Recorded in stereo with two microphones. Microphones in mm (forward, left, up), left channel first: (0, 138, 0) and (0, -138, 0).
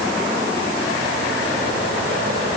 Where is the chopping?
I don't hear chopping.